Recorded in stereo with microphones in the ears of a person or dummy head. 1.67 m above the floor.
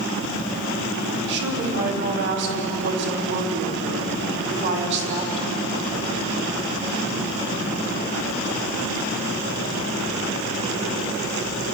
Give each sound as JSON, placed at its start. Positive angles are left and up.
{"t": 1.3, "sound": "a woman speaking", "side_deg": -55, "distance_m": 4.0}